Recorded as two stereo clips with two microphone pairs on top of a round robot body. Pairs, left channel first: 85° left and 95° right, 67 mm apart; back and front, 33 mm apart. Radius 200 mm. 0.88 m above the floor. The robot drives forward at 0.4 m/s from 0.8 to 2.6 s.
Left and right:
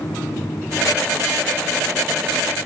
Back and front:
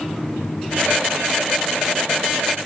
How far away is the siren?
I don't hear a siren.